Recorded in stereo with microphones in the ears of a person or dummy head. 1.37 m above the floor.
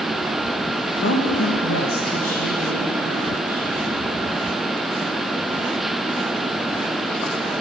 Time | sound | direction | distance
1.0 | a woman speaking | 70° left (ahead or behind) | 1.1 m